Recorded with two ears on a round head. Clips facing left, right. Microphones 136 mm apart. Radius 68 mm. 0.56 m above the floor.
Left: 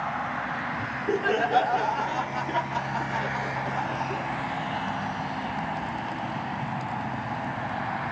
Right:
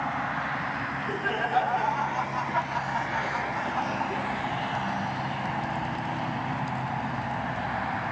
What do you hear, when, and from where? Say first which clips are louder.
0.8 s laughter: left 4 dB; 50° left (ahead or behind), 1.9 m; by 4.2 s centre (ahead or behind), 1.2 m